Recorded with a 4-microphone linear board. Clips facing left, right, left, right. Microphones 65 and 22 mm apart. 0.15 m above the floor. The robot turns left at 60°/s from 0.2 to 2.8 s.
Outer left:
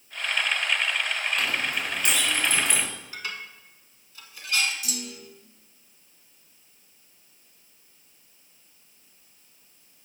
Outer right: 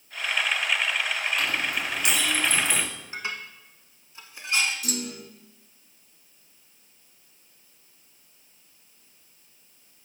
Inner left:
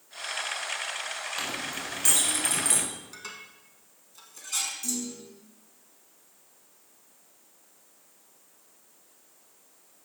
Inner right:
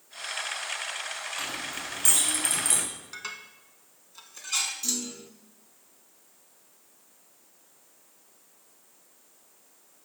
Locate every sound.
1.4 s a clink: 65° left (ahead or behind), 2.5 m; by 2.9 s centre (ahead or behind), 2.5 m
3.1 s dishes clattering: 25° right (ahead or behind), 0.9 m
4.8 s a clunk: 50° right (ahead or behind), 0.5 m